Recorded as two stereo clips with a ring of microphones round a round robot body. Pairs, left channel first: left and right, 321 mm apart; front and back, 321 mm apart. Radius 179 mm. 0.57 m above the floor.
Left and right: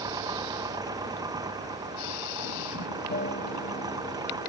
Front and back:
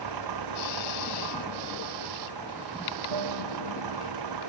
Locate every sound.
0.0 s an engine running: 170° right
3.1 s a guitar: 150° left